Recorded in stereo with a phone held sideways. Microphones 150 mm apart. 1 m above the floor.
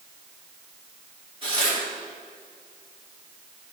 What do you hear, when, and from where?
1.4 s tearing paper: 35° right (ahead or behind), 3 m